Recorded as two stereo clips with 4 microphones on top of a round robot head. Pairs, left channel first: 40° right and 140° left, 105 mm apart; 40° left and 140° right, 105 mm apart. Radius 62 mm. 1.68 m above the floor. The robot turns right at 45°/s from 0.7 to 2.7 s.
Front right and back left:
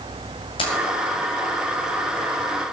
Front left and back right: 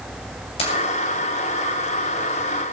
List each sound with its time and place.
0.6 s keys jangling: 5° left, 6 m